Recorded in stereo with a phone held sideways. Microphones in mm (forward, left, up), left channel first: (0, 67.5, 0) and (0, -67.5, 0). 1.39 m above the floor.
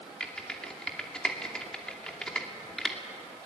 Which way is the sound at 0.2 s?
5° left (ahead or behind).